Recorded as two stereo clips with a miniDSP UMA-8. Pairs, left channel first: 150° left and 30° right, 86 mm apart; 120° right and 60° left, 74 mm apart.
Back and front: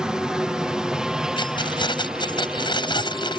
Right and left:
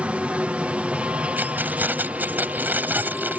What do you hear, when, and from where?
0.0 s a helicopter: 35° left
1.4 s keys jangling: 125° left